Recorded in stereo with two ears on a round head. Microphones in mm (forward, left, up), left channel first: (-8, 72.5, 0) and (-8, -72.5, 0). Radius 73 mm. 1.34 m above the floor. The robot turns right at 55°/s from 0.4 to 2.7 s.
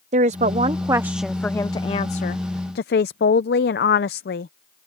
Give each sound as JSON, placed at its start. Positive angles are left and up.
{"t": 0.1, "sound": "a woman speaking", "azimuth_deg": -50}